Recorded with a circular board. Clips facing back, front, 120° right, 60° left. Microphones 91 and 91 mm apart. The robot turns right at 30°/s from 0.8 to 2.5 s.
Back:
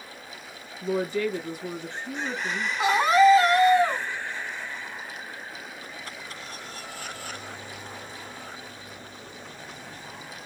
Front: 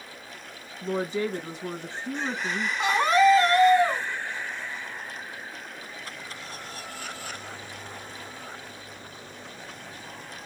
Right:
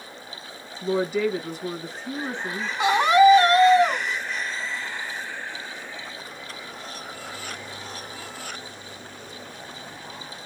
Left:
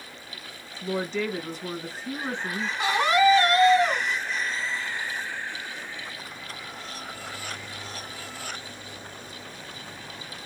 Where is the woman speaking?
55° right, 1.2 m; by 2.7 s 5° right, 1.2 m.